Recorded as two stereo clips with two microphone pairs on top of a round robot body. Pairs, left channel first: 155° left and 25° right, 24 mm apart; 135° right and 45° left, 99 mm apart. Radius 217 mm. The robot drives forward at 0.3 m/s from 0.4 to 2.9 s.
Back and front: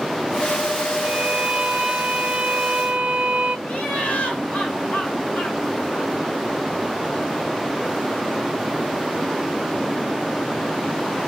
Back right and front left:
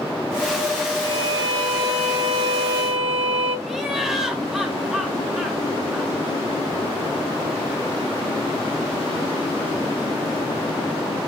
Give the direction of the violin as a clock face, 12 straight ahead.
12 o'clock.